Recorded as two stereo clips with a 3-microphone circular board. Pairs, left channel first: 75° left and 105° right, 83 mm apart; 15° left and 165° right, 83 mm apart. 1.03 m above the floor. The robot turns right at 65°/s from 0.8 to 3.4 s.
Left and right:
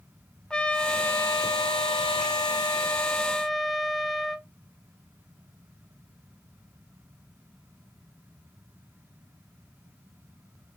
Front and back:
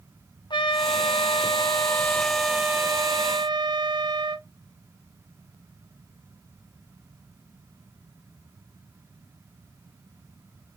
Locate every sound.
0.5 s a trumpet: 5° right, 0.6 m; by 4.5 s 165° left, 0.6 m